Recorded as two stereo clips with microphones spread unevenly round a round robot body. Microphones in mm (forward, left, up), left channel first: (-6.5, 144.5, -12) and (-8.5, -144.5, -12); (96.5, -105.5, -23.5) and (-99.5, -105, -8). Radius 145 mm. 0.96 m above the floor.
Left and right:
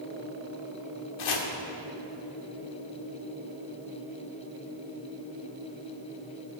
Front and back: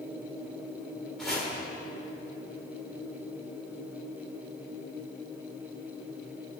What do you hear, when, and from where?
1.2 s chopping: 90° left, 1.6 m